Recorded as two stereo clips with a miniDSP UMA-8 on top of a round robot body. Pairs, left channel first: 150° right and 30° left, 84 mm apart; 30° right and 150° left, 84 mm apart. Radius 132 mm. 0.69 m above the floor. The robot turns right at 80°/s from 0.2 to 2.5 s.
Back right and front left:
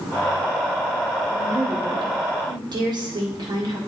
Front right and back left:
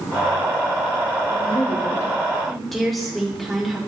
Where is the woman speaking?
35° right, 1.9 m; by 3.8 s 60° left, 1.9 m.